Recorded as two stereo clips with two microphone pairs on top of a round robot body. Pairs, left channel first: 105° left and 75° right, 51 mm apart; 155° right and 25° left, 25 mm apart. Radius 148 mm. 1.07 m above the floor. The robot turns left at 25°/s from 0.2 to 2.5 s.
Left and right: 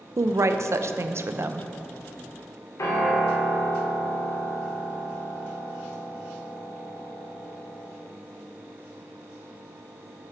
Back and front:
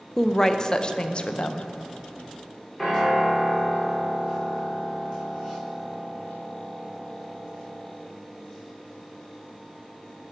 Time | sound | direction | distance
0.2 | a woman speaking | 85° right | 0.5 m
2.8 | a piano | 120° left | 1.6 m